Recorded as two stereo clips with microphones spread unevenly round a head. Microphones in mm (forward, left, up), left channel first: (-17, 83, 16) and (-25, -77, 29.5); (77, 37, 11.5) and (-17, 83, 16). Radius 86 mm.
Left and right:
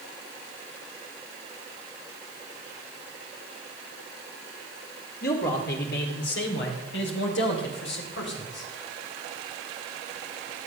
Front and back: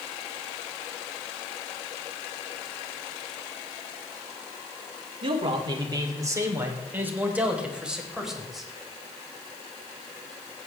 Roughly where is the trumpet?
No trumpet in this recording.